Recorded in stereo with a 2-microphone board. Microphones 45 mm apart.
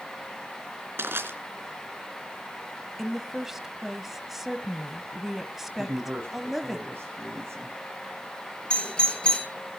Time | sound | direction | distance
1.0 | crushing | 60° right (ahead or behind) | 3.5 m
3.0 | a woman speaking | 5° right (ahead or behind) | 1.3 m
5.8 | a man speaking | 65° right (ahead or behind) | 6.5 m
8.7 | a doorbell | 20° left (ahead or behind) | 5 m